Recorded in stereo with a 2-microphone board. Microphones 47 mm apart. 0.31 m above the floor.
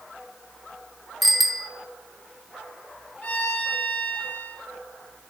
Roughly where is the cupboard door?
No cupboard door in this recording.